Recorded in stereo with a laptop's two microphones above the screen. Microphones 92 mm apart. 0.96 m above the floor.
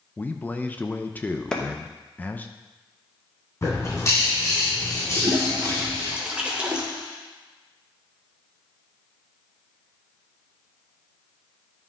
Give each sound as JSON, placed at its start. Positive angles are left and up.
{"t": 0.2, "sound": "a man speaking", "side_deg": 20, "distance_m": 0.5}
{"t": 1.5, "sound": "a clap", "side_deg": 10, "distance_m": 0.9}
{"t": 3.6, "sound": "a bird", "side_deg": 30, "distance_m": 2.5}
{"t": 5.2, "sound": "a toilet flushing", "side_deg": -10, "distance_m": 1.0}